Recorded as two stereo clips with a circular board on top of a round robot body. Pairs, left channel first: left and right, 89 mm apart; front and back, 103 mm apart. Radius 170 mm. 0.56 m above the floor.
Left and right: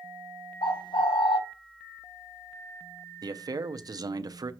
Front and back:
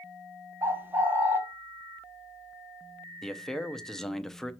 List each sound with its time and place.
0.6 s a bird: 110° left, 1.0 m
3.2 s a man speaking: 85° right, 0.8 m